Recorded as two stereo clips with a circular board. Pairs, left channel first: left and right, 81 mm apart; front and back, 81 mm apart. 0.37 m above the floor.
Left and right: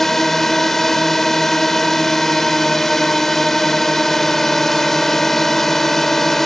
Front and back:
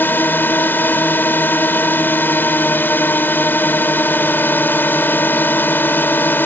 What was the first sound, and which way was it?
A drone, 10° left.